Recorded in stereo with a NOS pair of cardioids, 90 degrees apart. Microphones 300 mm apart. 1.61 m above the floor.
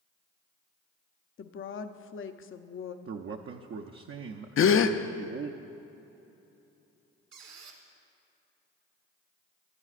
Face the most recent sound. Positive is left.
turn(degrees=-65)